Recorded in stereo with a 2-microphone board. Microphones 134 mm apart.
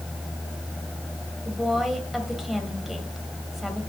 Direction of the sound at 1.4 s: 5° right (ahead or behind).